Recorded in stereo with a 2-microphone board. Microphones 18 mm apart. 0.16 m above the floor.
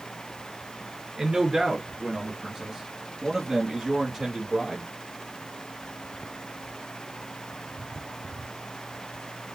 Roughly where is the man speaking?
Right.